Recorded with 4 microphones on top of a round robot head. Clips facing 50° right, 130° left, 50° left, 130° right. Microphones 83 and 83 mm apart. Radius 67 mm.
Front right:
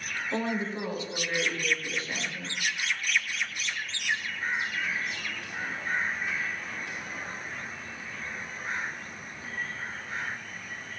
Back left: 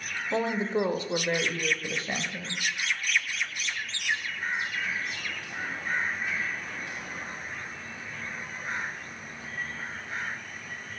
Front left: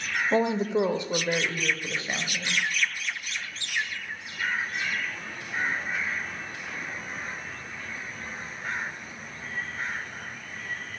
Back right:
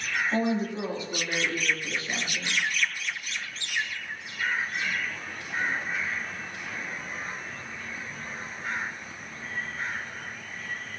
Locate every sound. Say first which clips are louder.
0.3 s a woman speaking: back left 4 dB, front left 5 dB; 55° left, 0.9 m; by 2.6 s 120° left, 1.6 m